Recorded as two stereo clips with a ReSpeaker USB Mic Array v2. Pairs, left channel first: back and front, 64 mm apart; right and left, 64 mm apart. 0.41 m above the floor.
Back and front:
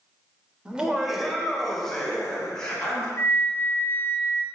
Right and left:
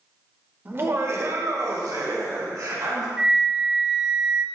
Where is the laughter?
60° left, 1.1 m; by 3.1 s 100° left, 3.5 m.